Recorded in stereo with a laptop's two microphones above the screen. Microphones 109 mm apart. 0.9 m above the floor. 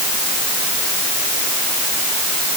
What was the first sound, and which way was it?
Only background noise.